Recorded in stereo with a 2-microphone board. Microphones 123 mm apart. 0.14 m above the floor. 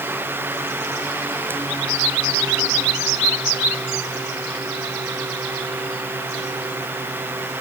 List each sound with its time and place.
Only background noise.